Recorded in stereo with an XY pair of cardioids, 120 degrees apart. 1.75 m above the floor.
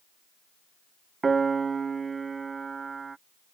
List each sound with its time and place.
1.2 s a piano: 30° right